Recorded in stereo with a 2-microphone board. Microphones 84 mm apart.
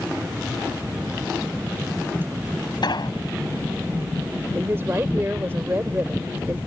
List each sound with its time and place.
2.8 s an explosion: 65° left (ahead or behind)
4.5 s a woman speaking: 30° right (ahead or behind)